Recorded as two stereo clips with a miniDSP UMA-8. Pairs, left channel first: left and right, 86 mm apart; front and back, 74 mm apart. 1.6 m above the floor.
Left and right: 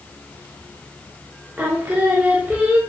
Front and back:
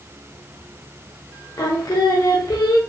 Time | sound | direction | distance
1.6 | singing | 25° right | 0.6 m